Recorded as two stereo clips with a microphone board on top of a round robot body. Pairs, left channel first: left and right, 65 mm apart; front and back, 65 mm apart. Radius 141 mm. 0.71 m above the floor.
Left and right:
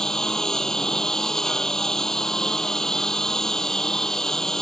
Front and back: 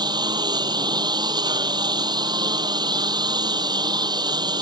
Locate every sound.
0.0 s a lawn mower: 170° left